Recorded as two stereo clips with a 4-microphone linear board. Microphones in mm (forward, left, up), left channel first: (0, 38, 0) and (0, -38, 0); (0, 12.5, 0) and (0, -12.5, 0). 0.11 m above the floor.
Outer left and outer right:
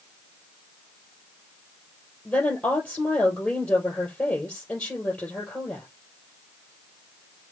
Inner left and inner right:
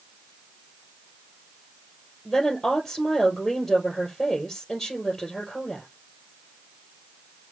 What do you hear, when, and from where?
2.2 s a woman speaking: 20° left (ahead or behind), 2 m